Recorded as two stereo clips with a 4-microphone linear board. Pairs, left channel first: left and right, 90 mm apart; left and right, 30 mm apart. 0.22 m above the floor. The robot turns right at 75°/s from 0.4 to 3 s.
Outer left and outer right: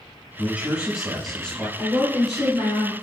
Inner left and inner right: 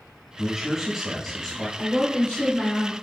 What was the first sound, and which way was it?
A man speaking, 20° right (ahead or behind).